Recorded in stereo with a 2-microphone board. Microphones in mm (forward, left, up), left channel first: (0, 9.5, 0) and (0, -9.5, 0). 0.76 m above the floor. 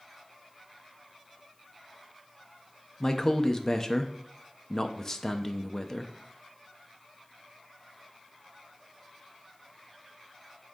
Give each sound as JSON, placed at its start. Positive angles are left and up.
{"t": 3.0, "sound": "a man speaking", "side_deg": 35, "distance_m": 0.6}